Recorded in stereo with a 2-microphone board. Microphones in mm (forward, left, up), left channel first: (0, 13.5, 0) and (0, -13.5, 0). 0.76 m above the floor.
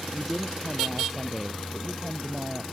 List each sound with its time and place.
0.1 s a woman speaking: 5° right (ahead or behind); by 2.6 s 15° right (ahead or behind)